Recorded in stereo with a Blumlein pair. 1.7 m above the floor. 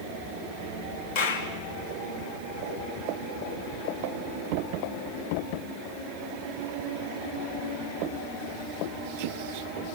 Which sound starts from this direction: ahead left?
A clap, at 1.1 s.